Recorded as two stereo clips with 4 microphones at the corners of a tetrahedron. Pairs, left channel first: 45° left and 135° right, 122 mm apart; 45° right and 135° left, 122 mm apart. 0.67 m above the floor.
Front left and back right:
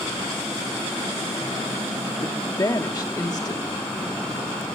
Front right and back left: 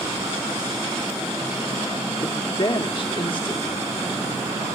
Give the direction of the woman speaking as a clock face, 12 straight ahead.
12 o'clock.